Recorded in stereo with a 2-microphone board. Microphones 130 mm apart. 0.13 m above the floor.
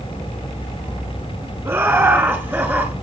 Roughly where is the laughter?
Centre.